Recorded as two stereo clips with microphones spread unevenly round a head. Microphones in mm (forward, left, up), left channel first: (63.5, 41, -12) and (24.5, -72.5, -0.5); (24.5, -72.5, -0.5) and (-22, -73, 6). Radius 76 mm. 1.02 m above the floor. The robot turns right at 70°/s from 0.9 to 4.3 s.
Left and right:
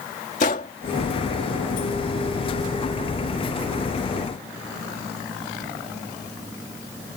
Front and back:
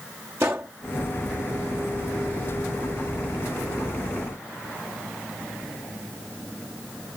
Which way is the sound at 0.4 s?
115° left.